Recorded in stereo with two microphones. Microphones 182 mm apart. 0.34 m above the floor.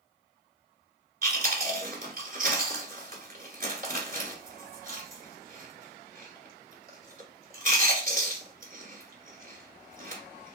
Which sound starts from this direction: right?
Chewing, at 1.2 s.